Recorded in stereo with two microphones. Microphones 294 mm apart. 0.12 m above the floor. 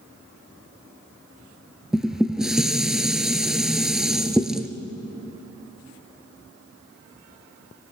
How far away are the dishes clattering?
About 1.3 m.